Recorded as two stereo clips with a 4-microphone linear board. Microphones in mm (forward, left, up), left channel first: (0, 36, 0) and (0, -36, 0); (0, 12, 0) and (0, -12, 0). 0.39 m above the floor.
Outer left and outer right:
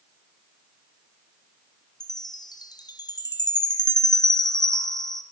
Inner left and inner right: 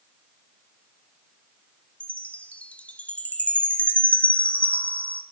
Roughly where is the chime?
Left.